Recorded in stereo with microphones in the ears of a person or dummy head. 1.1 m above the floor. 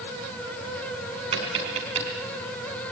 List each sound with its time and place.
1.3 s tapping: 40° right (ahead or behind), 4.5 m